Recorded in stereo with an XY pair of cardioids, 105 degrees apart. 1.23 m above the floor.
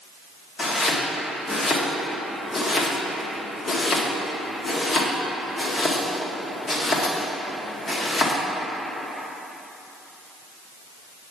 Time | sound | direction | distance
0.6 | chopping | 40° left | 1.5 m